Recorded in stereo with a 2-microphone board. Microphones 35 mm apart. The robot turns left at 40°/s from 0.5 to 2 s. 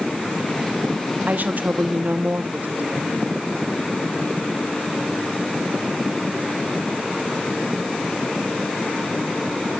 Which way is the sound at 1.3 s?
60° right (ahead or behind).